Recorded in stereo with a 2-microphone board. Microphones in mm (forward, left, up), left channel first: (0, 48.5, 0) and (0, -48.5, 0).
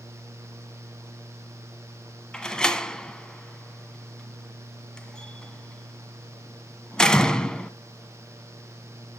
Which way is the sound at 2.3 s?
5° left (ahead or behind).